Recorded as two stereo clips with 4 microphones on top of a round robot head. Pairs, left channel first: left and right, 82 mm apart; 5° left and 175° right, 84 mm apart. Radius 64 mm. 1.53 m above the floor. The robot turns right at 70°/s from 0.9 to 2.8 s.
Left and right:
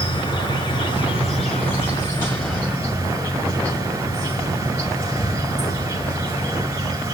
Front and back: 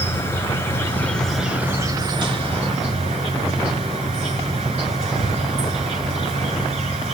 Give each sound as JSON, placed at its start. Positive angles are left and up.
{"t": 0.0, "sound": "an insect", "azimuth_deg": 70, "distance_m": 6.0}